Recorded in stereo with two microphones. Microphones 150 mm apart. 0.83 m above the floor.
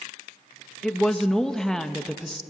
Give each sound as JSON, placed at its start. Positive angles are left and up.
{"t": 0.8, "sound": "a woman speaking", "side_deg": 5, "distance_m": 0.8}